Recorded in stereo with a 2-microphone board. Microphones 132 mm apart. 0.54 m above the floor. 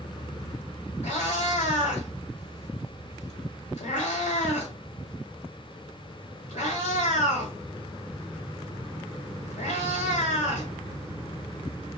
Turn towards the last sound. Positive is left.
turn(degrees=75)  # may be behind; listen again after turning